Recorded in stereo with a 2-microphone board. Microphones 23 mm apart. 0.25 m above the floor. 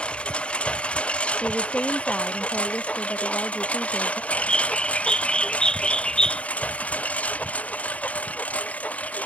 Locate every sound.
0.0 s a lawn mower: 50° left (ahead or behind); by 9.3 s 70° left (ahead or behind)
1.4 s a woman speaking: 55° left (ahead or behind)
4.3 s a bird: 35° left (ahead or behind)